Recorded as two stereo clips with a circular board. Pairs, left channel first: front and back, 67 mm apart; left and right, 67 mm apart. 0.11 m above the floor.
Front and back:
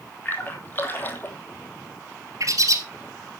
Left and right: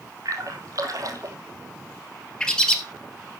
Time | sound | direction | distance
0.2 | a splash | 60° right | 1.7 m
2.4 | a bird | 165° left | 1.8 m